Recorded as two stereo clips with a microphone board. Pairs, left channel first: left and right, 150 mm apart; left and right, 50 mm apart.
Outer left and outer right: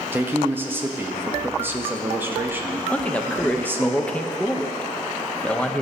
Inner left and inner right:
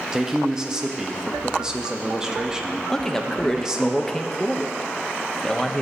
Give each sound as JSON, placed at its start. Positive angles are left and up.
{"t": 0.1, "sound": "a man speaking", "side_deg": -15, "distance_m": 0.8}
{"t": 2.9, "sound": "a man speaking", "side_deg": 10, "distance_m": 0.6}